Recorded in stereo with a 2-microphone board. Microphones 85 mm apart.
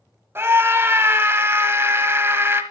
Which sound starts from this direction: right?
A scream, at 0.3 s.